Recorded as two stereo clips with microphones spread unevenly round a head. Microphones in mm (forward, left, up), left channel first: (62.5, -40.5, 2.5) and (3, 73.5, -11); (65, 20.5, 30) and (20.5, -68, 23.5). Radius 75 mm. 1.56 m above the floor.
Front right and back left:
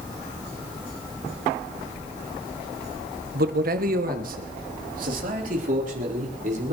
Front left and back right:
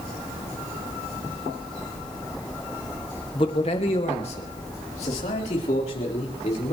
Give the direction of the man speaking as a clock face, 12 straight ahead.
8 o'clock.